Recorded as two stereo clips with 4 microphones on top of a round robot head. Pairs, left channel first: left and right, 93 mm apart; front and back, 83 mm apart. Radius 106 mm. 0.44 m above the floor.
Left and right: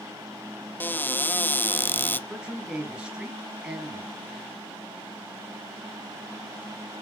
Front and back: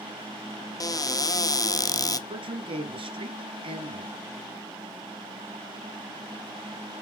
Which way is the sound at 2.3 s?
175° right.